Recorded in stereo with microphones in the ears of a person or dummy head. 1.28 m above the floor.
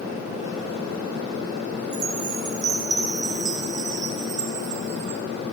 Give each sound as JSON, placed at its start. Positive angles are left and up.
{"t": 1.9, "sound": "a chime", "side_deg": -40, "distance_m": 1.6}